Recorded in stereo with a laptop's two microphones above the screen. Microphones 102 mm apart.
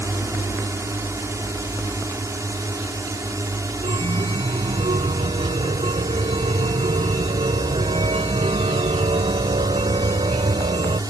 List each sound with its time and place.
0.0 s a drone: 25° right (ahead or behind); by 11.1 s 35° right (ahead or behind)
3.8 s a chime: 80° right